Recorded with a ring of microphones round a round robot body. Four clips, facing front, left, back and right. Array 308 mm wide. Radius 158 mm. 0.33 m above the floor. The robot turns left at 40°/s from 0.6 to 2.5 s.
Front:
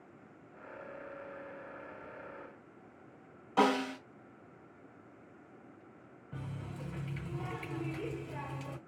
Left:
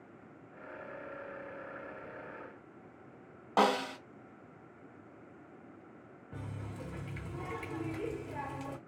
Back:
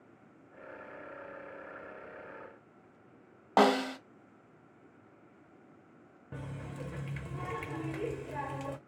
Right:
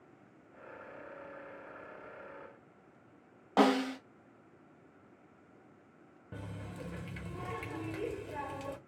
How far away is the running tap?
About 0.9 m.